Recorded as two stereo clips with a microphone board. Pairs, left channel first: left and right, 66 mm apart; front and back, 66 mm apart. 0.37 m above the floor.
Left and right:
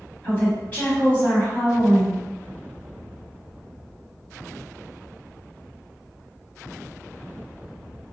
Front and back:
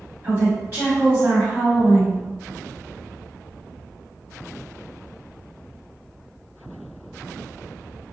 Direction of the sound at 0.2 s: 145° left.